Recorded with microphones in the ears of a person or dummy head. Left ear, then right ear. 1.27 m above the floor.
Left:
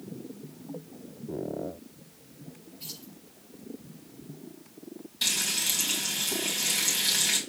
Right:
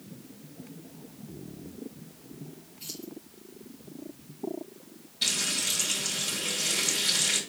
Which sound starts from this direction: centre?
Keys jangling, at 2.8 s.